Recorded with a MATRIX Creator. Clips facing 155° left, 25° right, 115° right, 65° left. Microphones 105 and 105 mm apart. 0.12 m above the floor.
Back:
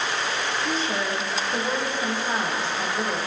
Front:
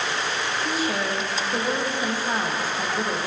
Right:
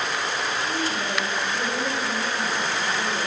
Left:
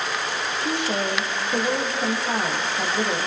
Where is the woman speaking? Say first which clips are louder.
Front 2 dB, left 2 dB; 60° left, 6.5 m.